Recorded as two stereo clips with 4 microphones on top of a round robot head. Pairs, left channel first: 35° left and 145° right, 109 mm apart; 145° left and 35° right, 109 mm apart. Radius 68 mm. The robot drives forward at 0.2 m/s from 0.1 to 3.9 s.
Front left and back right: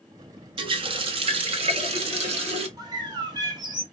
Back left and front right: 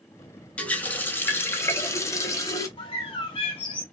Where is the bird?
170° left, 1.0 m; by 3.8 s 175° left, 1.2 m.